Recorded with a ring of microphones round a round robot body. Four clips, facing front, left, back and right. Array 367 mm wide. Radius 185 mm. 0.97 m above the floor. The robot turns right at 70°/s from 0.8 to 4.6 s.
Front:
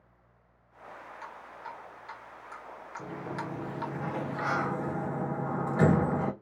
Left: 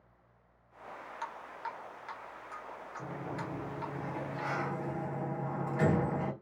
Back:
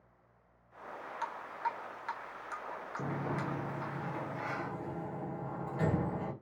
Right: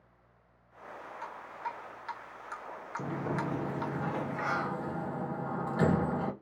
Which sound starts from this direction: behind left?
Dripping, at 1.2 s.